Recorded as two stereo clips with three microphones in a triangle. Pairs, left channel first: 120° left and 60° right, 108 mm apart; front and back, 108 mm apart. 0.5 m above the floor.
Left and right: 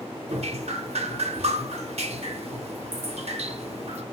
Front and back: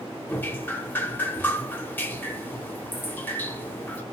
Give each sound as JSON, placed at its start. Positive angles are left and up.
{"t": 0.3, "sound": "dripping", "azimuth_deg": -75, "distance_m": 0.6}